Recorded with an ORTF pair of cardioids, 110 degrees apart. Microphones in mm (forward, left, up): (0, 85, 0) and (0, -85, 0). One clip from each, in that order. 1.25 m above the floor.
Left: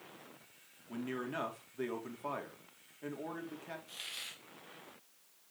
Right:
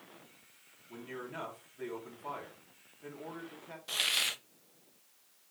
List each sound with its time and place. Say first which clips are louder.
0.9 s a man speaking: left 3 dB; 45° left, 3.5 m
3.9 s a hiss: right 17 dB; 65° right, 0.6 m